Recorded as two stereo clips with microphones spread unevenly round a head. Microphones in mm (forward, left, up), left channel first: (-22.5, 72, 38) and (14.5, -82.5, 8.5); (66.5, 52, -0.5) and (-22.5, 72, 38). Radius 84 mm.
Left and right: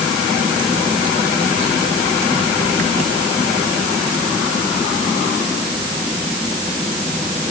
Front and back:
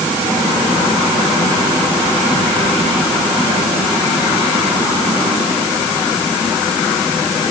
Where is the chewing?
I don't hear chewing.